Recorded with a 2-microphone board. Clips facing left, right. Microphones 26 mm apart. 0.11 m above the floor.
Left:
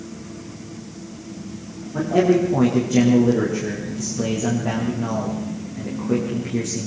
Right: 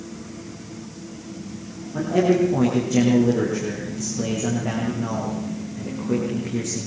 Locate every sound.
1.9 s a man speaking: 5° left (ahead or behind), 6 m